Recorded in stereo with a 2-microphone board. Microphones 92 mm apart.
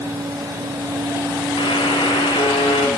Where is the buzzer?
70° left (ahead or behind), 3.5 m.